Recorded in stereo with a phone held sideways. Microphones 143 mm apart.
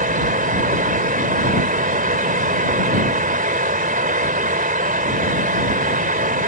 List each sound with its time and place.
0.0 s a fan: 80° right